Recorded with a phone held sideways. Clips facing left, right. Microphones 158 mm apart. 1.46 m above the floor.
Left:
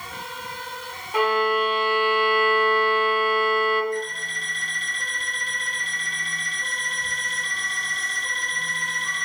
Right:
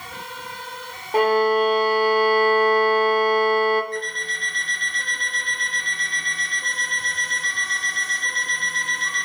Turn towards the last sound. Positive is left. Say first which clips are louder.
# left 1 dB
turn(degrees=-70)  # may be behind; listen again after turning